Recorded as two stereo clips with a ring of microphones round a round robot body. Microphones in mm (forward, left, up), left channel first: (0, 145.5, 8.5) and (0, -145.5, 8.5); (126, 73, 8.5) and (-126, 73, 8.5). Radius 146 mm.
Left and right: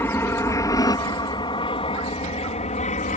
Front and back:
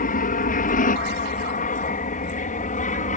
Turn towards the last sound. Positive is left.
turn(degrees=40)